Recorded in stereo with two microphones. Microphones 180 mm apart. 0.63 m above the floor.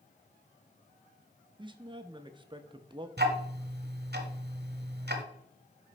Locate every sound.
1.6 s a man speaking: 25° right (ahead or behind), 0.5 m
3.2 s ticking: 65° right (ahead or behind), 1.1 m